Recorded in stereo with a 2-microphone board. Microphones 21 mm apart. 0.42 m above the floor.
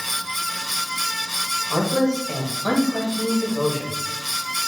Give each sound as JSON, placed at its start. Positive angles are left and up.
{"t": 1.7, "sound": "a man speaking", "side_deg": -50, "distance_m": 2.0}